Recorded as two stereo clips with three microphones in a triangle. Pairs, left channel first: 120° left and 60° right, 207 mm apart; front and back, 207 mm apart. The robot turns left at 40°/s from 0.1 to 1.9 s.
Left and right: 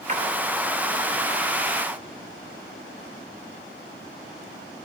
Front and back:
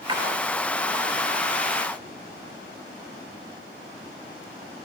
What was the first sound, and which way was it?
A splash, 110° right.